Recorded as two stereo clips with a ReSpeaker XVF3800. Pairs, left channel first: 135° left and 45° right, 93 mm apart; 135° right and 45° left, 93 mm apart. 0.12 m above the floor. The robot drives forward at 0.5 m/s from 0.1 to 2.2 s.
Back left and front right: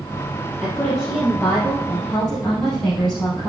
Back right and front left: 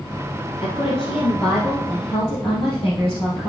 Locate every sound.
0.6 s a woman speaking: 140° right, 3.5 m; by 3.5 s 145° right, 4 m